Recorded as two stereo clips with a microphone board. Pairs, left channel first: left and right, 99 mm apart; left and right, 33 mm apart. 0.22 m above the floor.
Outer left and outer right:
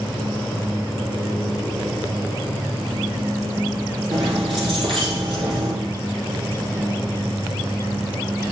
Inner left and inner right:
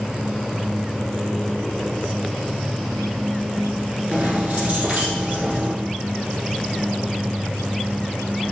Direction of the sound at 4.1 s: 60° right (ahead or behind).